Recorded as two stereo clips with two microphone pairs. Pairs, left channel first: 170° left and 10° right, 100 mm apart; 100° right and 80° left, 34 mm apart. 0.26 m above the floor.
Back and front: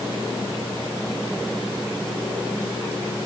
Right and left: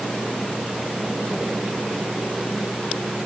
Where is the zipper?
No zipper in this recording.